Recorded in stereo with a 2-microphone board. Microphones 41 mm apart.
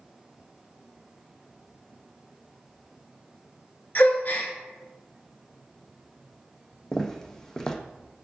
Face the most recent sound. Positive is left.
turn(degrees=20)  # may be behind; listen again after turning